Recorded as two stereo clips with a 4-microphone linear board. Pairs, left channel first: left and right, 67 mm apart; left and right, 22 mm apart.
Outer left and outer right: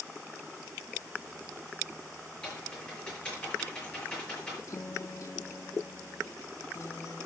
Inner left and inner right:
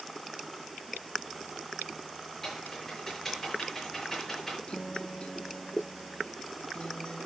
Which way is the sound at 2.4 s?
15° left (ahead or behind).